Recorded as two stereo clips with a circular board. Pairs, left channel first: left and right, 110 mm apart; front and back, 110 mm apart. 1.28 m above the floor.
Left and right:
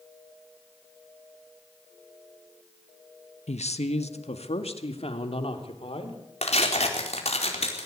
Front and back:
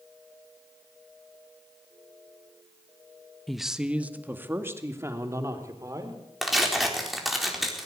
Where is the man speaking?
90° left, 1.3 m; by 6.2 s 120° left, 4 m.